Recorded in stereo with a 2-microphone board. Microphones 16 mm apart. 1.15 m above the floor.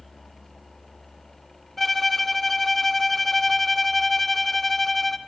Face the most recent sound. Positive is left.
turn(degrees=10)  # may be behind; listen again after turning